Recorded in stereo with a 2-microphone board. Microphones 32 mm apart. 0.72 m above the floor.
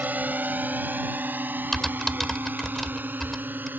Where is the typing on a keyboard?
10° left (ahead or behind).